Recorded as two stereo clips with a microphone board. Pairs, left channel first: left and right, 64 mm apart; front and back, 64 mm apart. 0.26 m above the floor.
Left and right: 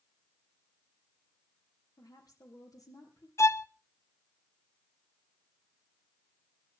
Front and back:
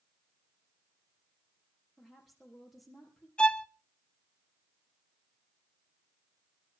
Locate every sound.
2.0 s a woman speaking: 90° left, 6 m
3.4 s a violin: 70° left, 0.5 m